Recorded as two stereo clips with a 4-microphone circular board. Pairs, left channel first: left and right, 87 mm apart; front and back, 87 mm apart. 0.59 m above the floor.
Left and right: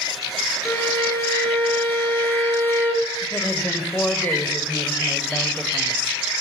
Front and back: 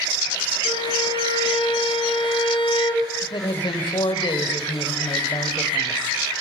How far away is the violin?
About 3.5 m.